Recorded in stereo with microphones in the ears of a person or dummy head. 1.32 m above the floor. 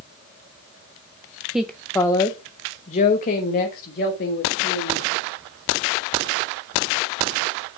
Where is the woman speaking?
5° right (ahead or behind), 0.7 m; by 5.1 s 55° left (ahead or behind), 2.5 m.